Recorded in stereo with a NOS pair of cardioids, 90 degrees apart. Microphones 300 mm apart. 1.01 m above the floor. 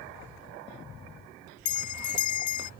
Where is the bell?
65° left.